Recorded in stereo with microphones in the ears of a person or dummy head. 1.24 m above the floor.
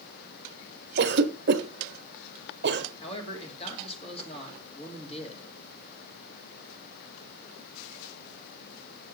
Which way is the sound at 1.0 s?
50° right (ahead or behind).